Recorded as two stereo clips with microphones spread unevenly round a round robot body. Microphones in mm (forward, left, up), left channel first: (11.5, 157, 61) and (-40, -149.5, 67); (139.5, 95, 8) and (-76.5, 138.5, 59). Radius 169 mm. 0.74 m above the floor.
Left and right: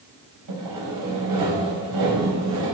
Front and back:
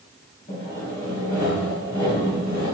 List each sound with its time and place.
0.5 s sawing: 75° right, 5 m